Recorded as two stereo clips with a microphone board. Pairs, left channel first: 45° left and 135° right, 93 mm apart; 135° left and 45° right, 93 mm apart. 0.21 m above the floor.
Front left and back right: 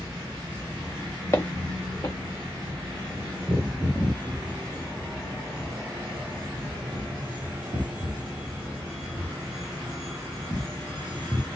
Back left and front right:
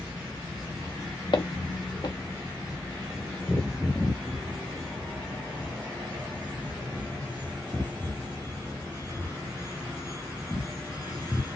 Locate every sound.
1.3 s footsteps: 105° left, 1.6 m